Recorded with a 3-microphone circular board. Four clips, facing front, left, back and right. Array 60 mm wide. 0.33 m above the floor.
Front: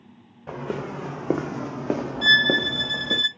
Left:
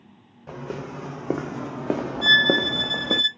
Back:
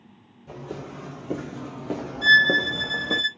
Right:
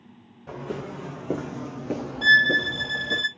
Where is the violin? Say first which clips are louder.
Right 2 dB, back 3 dB; 10° right, 2 m.